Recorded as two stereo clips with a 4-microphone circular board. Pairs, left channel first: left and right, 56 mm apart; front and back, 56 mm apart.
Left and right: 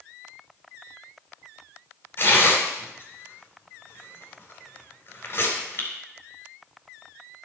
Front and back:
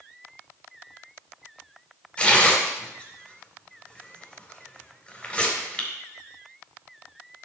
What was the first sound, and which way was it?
Tearing paper, 65° left.